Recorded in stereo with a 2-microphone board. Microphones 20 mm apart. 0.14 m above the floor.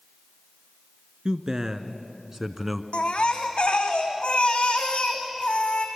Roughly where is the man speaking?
Right.